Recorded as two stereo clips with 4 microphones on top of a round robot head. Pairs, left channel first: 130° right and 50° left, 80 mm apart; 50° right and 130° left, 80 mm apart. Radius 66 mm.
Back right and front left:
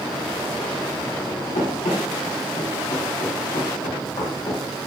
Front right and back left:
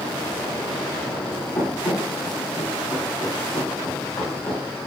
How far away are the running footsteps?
About 8 m.